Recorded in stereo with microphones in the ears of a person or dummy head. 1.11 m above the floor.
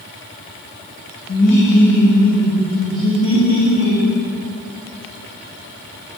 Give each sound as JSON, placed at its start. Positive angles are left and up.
{"t": 1.3, "sound": "laughter", "side_deg": 60, "distance_m": 1.3}